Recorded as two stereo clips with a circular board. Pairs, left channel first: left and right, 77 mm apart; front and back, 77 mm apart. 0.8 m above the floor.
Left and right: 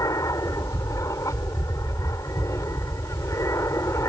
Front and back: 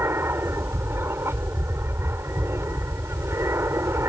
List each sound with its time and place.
0.0 s an aircraft: 125° left; by 4.1 s 130° left